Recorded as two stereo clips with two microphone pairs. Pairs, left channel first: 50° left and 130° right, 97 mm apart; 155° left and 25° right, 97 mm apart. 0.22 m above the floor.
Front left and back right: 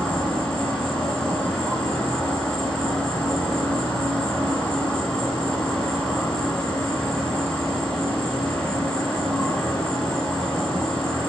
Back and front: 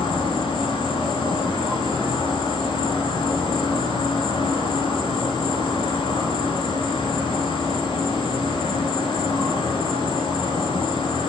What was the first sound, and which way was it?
An insect, 130° left.